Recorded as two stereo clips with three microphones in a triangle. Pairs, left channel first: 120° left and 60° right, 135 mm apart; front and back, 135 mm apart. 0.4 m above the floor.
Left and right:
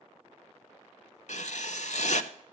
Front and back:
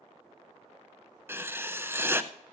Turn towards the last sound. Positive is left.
turn(degrees=110)